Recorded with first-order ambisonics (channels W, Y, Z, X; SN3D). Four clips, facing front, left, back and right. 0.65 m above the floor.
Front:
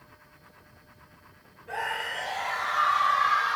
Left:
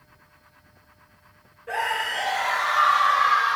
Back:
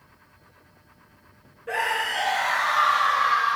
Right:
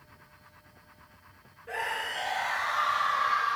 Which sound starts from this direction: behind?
A scream, at 1.7 s.